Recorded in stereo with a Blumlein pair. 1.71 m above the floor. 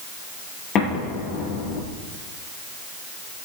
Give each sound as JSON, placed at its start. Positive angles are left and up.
{"t": 0.8, "sound": "an explosion", "azimuth_deg": 30, "distance_m": 7.5}